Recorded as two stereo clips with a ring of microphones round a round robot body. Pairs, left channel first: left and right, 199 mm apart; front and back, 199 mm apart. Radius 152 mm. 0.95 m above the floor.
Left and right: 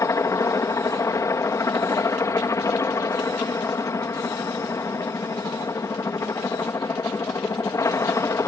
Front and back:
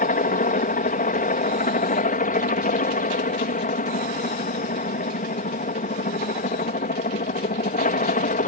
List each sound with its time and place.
0.0 s a helicopter: 20° left